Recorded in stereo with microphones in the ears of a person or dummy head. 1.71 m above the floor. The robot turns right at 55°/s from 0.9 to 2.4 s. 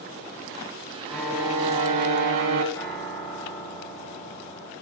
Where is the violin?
Straight behind, 0.9 m; by 2.6 s 110° right, 0.9 m.